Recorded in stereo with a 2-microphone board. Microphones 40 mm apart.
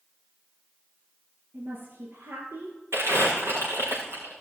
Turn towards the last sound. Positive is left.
turn(degrees=-80)